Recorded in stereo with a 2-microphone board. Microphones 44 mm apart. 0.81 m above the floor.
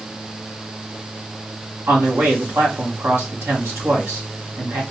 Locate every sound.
1.9 s a man speaking: 75° right (ahead or behind), 1.6 m